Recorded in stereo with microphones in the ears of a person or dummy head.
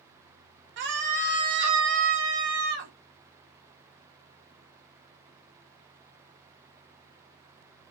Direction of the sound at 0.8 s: 55° right (ahead or behind).